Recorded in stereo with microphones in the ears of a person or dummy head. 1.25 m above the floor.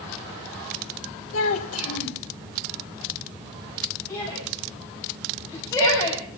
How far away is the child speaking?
About 2 m.